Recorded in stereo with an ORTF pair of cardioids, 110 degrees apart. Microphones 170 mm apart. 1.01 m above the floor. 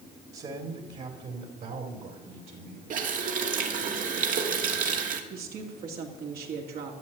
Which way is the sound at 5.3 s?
65° right.